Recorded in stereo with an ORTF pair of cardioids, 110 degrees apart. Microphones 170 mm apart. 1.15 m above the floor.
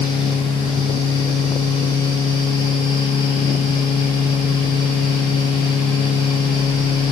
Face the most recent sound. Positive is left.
turn(degrees=25)